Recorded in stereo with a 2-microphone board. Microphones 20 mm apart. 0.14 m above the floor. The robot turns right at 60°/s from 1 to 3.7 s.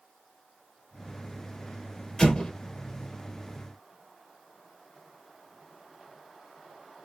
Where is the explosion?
35° left (ahead or behind), 1.8 m; by 2.5 s 50° left (ahead or behind), 1.8 m.